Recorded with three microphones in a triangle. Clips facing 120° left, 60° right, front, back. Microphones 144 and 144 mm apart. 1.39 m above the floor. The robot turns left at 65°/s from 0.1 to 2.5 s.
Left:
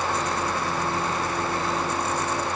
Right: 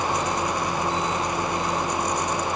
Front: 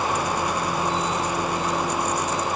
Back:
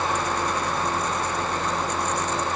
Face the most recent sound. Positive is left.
No sound to turn to.